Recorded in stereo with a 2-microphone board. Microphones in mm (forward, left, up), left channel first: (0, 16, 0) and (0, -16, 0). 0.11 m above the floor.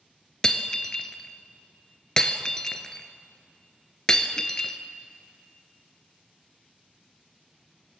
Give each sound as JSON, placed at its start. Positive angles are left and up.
{"t": 0.4, "sound": "breaking glass", "side_deg": 25, "distance_m": 1.2}